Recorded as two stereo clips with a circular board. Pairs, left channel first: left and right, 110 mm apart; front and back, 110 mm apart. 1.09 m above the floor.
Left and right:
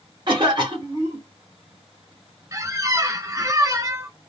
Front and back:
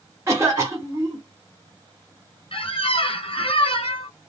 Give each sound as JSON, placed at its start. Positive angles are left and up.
{"t": 0.3, "sound": "a cough", "azimuth_deg": -120, "distance_m": 1.0}
{"t": 2.5, "sound": "a squeak", "azimuth_deg": -30, "distance_m": 0.6}